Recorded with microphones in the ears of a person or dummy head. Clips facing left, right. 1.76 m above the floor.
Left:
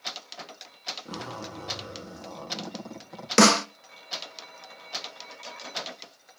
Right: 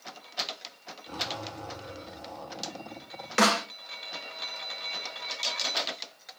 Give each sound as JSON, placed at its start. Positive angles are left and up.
{"t": 1.1, "sound": "a zipper", "side_deg": 65, "distance_m": 3.5}
{"t": 3.4, "sound": "a snare drum", "side_deg": 50, "distance_m": 0.5}